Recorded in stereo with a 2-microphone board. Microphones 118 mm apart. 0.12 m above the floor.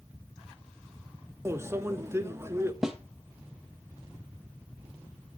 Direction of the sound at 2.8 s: 5° right (ahead or behind).